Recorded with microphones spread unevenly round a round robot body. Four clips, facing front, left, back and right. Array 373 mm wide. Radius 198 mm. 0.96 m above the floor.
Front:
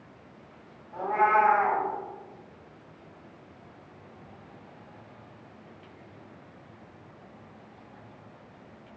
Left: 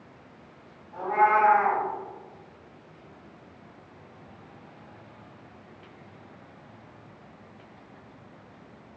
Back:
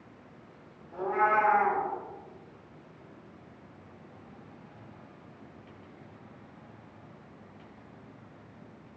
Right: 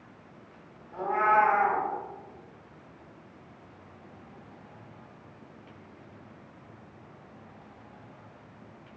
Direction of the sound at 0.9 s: 155° right.